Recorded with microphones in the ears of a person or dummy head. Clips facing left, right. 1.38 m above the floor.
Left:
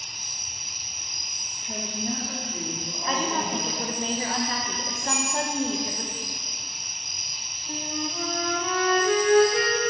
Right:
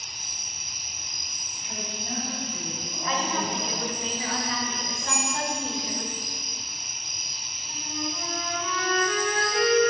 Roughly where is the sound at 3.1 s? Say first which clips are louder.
Left 1 dB; left.